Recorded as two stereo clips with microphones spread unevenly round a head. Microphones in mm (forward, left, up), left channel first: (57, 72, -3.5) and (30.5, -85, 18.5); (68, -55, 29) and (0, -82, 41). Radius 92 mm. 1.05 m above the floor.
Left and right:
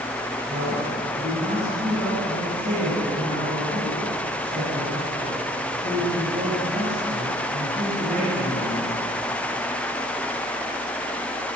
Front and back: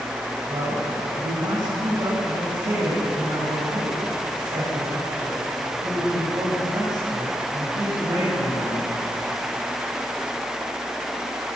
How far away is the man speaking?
About 6.5 m.